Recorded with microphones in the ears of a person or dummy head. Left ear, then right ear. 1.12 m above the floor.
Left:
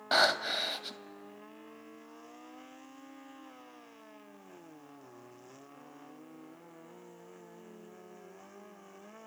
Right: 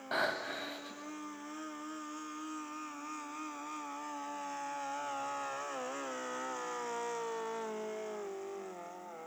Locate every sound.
0.1 s breathing: 40° left (ahead or behind), 1.5 m